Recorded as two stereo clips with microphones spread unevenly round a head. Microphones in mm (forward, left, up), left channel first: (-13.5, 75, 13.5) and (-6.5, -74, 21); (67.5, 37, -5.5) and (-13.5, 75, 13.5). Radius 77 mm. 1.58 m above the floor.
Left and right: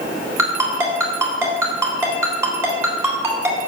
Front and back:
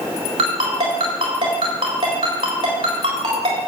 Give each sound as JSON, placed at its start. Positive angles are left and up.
{"t": 0.4, "sound": "a ringtone", "azimuth_deg": -160, "distance_m": 3.5}